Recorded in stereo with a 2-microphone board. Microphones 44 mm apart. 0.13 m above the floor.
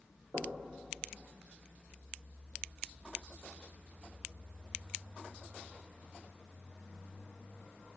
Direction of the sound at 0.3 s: 70° right (ahead or behind).